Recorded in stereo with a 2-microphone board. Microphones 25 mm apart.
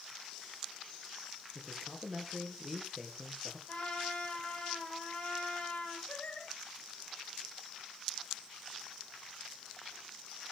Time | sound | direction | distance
1.6 | a man speaking | 5° right (ahead or behind) | 4 m
3.7 | a trumpet | 50° left (ahead or behind) | 9 m
6.1 | singing | 60° left (ahead or behind) | 8 m